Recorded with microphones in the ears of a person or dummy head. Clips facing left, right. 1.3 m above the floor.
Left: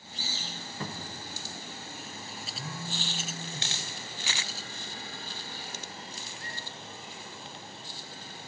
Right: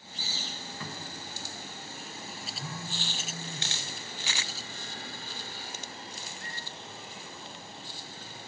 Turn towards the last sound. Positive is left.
turn(degrees=25)  # may be behind; listen again after turning